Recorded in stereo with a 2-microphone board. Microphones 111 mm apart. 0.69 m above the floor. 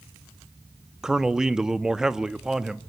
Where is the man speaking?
5° right (ahead or behind), 0.9 m.